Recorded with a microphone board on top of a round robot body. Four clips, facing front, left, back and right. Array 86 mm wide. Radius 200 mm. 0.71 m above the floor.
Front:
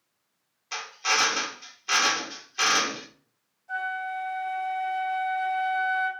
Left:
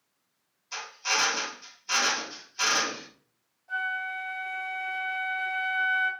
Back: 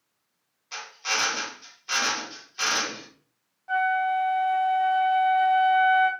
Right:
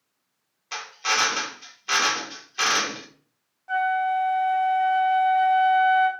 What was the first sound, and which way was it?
A drill, 65° right.